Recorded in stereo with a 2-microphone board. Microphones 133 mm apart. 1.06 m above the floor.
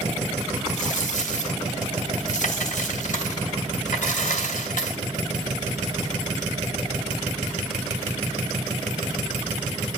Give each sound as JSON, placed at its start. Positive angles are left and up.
{"t": 0.7, "sound": "a dropped coin", "side_deg": 75, "distance_m": 2.5}